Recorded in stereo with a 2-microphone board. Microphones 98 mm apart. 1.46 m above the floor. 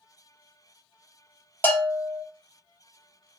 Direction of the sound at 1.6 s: 20° left (ahead or behind).